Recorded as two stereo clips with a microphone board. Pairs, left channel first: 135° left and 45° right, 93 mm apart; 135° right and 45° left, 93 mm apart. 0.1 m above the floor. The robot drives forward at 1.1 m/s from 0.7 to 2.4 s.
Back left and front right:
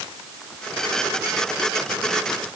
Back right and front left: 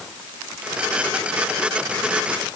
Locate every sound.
Only background noise.